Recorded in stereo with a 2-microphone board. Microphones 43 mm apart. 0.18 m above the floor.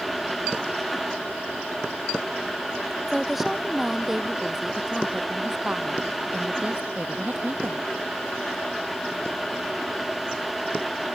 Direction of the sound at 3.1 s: Centre (ahead or behind).